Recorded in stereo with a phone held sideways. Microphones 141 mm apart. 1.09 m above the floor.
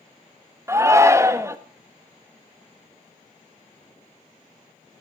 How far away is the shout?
About 1.3 m.